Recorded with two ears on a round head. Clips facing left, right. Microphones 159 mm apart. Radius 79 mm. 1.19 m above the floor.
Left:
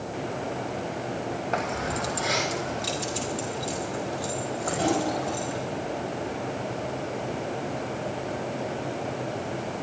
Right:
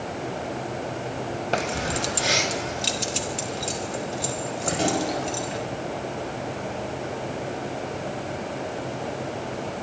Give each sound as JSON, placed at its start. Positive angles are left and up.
{"t": 1.5, "sound": "keys jangling", "side_deg": -35, "distance_m": 0.8}